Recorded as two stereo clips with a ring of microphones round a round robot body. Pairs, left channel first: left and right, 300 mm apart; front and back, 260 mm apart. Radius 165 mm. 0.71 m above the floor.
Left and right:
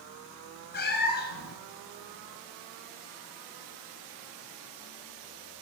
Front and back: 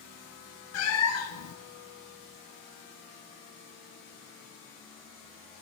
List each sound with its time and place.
0.7 s a cat meowing: 30° left, 1.9 m